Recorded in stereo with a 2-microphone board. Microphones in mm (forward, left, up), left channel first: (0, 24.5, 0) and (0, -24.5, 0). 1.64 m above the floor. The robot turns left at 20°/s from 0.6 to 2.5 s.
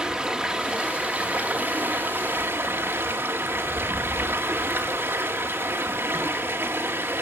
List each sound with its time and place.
0.0 s running water: 15° right, 2 m; by 7.2 s 50° right, 2 m